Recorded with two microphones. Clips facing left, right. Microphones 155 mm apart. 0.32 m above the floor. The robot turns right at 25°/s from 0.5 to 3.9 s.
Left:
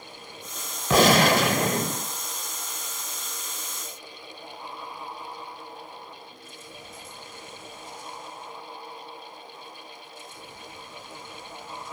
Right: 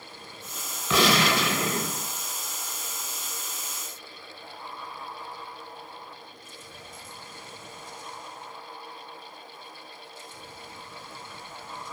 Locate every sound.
0.9 s a gunshot: 50° left (ahead or behind), 0.5 m; by 2.1 s 45° left (ahead or behind), 0.5 m